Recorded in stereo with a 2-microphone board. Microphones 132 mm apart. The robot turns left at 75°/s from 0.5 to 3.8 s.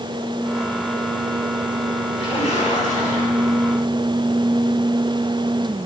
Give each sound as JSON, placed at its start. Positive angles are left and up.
{"t": 2.2, "sound": "a splash", "azimuth_deg": 135, "distance_m": 3.5}